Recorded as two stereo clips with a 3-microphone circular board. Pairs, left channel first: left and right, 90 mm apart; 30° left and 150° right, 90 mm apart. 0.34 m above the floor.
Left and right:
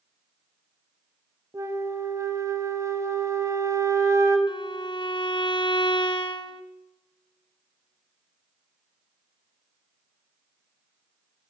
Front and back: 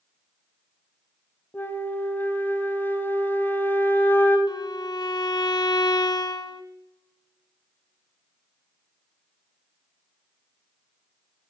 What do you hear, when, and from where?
1.5 s a flute: 35° right, 1.5 m
4.5 s a violin: 65° left, 0.8 m